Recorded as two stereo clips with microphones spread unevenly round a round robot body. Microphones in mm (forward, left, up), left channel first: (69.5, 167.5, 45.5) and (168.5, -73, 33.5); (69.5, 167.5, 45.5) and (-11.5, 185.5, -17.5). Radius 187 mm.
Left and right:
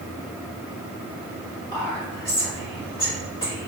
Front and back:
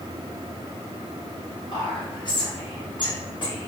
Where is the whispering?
45° left, 1.7 m.